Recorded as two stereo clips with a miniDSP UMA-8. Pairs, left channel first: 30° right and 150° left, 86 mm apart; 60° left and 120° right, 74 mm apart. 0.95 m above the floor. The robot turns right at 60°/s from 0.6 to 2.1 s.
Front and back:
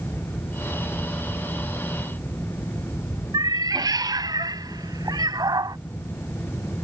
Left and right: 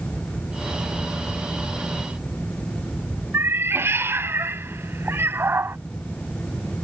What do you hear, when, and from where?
3.3 s a cat meowing: 175° right